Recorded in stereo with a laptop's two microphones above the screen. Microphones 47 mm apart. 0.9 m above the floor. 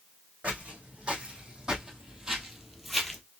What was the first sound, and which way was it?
Footsteps, 25° right (ahead or behind).